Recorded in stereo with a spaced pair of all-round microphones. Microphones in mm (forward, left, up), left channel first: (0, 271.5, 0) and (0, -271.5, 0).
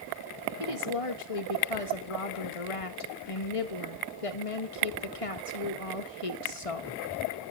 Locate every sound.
0.6 s a woman speaking: 75° left (ahead or behind), 1.5 m